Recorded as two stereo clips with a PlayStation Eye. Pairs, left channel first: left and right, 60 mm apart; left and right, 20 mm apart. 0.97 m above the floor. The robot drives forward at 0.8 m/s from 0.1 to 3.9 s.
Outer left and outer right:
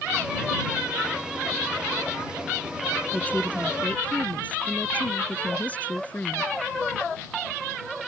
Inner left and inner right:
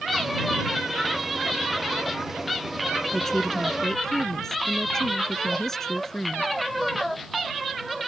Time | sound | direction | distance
3.1 | a woman speaking | 25° left (ahead or behind) | ?